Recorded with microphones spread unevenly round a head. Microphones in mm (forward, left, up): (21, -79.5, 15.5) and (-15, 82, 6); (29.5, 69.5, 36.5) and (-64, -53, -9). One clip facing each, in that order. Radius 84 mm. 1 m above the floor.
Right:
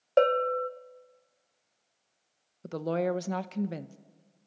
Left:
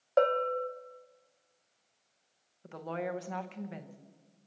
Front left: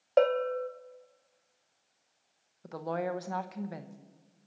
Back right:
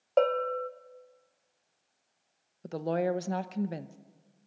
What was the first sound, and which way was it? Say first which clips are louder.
A bell: right 3 dB, front left 1 dB; 50° right.